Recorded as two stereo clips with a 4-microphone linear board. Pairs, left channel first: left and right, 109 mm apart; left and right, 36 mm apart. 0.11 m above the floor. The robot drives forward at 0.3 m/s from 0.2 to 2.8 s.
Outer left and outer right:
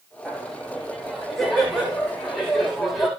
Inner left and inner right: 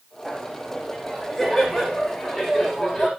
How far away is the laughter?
About 8.5 m.